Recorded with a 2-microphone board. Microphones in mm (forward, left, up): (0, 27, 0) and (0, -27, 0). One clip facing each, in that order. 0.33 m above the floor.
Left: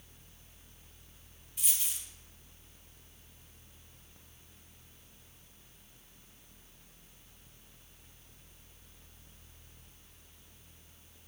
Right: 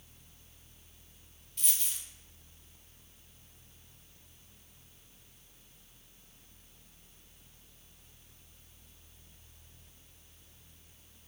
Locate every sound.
1.6 s a dropped coin: 5° left (ahead or behind), 0.5 m